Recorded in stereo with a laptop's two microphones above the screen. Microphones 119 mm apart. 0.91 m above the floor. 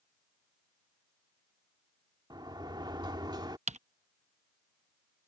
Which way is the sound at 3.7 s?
75° right (ahead or behind).